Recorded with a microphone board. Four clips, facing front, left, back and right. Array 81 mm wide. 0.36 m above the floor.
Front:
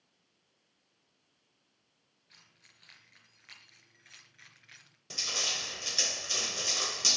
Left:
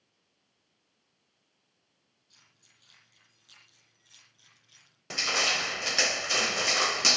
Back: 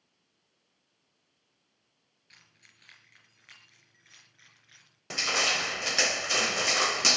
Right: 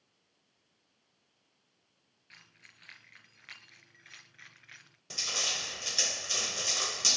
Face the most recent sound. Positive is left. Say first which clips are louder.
# left 9 dB, back 10 dB
turn(degrees=140)